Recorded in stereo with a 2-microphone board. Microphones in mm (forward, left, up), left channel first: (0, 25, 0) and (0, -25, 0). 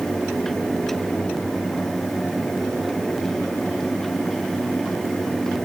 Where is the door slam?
I don't hear a door slam.